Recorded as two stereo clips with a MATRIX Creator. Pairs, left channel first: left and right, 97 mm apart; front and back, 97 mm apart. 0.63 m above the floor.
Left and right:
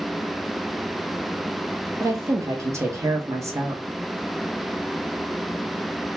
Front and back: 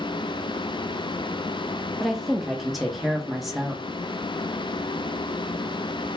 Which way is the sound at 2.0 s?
95° right.